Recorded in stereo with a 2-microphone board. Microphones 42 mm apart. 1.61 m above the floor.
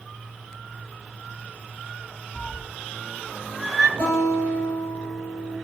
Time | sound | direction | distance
2.4 | a cat meowing | 45° left (ahead or behind) | 1.0 m
4.0 | a guitar | 55° left (ahead or behind) | 5.5 m